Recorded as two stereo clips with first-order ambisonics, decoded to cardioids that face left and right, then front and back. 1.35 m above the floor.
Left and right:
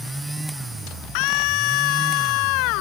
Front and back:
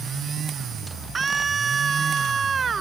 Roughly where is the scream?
Left.